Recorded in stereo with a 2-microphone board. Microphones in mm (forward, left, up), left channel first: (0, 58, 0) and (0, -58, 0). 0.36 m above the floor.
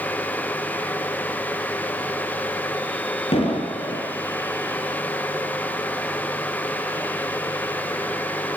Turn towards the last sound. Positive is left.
turn(degrees=50)  # may be behind; listen again after turning